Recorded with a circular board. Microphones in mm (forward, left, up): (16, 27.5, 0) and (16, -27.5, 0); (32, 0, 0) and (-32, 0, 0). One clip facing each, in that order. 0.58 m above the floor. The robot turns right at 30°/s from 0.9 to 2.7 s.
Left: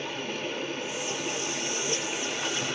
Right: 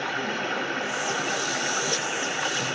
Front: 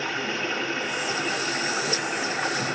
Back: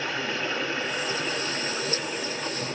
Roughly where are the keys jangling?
No keys jangling in this recording.